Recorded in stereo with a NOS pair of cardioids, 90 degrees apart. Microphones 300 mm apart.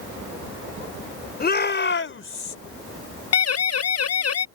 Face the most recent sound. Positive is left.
turn(degrees=55)